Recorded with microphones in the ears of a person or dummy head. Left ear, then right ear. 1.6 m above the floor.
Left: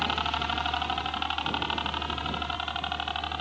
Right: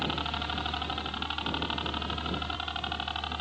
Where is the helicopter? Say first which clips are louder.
Left 4 dB; 45° left (ahead or behind); by 3.4 s 35° left (ahead or behind).